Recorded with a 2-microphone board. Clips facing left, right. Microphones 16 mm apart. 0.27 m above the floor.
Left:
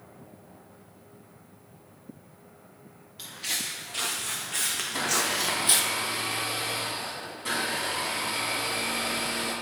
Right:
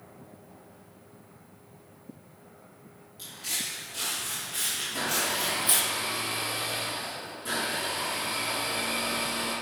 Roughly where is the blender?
Left.